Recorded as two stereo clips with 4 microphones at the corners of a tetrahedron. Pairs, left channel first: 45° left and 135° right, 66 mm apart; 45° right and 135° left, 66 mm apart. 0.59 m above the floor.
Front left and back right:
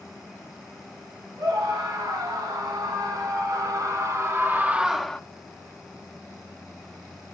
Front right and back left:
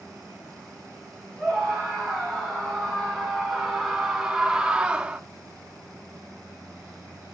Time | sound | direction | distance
1.4 | a scream | 135° right | 5 m